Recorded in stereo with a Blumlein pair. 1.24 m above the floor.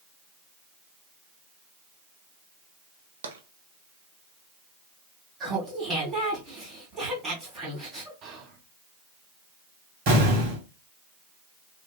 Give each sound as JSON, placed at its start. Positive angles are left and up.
{"t": 3.2, "sound": "tapping", "azimuth_deg": -65, "distance_m": 0.7}
{"t": 5.4, "sound": "laughter", "azimuth_deg": -20, "distance_m": 2.5}
{"t": 8.2, "sound": "whispering", "azimuth_deg": -30, "distance_m": 1.1}
{"t": 10.1, "sound": "an explosion", "azimuth_deg": -45, "distance_m": 1.7}